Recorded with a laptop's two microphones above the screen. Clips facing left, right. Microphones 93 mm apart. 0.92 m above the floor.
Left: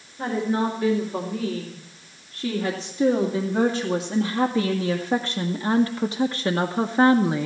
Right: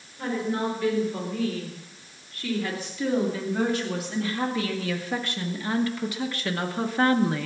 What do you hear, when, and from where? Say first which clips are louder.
0.2 s a woman speaking: left 4 dB; 30° left (ahead or behind), 4 m; by 7.5 s 15° left (ahead or behind), 0.8 m